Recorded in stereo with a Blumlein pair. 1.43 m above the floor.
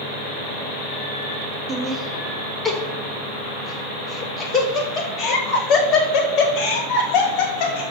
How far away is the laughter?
About 2 m.